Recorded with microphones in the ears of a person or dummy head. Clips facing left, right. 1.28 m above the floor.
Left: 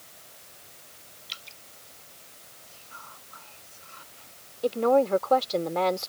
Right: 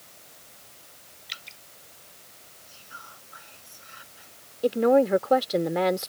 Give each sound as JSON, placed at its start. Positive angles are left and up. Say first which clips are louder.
{"t": 1.3, "sound": "dripping", "louder": "right 3 dB", "side_deg": -25}
{"t": 2.7, "sound": "whispering", "louder": "even", "side_deg": -15}
{"t": 4.6, "sound": "a woman speaking", "louder": "right 2 dB", "side_deg": -20}